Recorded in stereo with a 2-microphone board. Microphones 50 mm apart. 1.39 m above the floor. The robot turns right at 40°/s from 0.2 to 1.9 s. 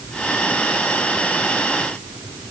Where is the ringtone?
No ringtone in this recording.